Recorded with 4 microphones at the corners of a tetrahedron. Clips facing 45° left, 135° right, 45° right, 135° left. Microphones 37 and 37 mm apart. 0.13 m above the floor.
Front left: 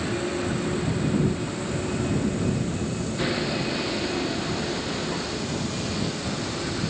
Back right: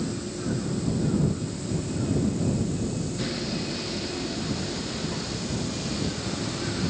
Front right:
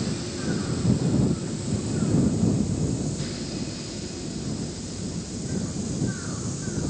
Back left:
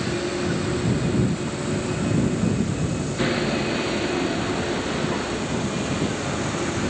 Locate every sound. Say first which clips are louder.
0.0 s a vehicle: front left 4 dB, back left 5 dB; 90° left; by 6.9 s 125° left